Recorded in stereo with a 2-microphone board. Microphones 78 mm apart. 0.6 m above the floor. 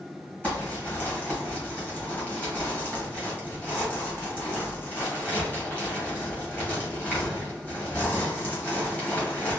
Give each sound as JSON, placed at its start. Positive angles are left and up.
{"t": 0.4, "sound": "crumpling", "side_deg": 20, "distance_m": 1.7}